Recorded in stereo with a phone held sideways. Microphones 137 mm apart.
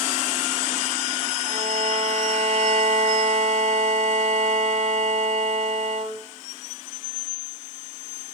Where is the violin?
55° right (ahead or behind), 1.9 m.